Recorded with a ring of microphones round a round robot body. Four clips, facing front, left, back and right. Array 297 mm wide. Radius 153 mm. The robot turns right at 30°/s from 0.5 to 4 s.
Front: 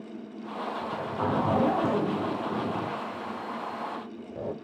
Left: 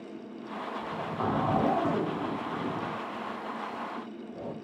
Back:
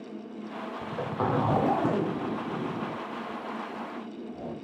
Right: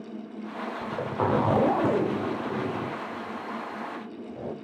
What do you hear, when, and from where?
0.8 s a zipper: 115° right, 0.9 m; by 4.5 s 15° right, 0.9 m